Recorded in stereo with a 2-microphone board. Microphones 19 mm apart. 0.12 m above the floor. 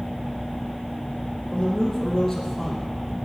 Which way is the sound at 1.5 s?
10° left (ahead or behind).